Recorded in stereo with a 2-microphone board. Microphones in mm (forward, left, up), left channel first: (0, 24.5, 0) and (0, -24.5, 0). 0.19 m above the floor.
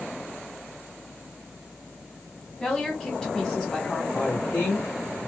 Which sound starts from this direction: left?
A woman speaking, at 4.1 s.